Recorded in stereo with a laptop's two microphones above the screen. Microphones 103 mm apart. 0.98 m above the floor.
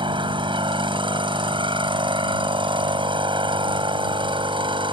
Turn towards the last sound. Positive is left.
turn(degrees=-55)  # may be behind; listen again after turning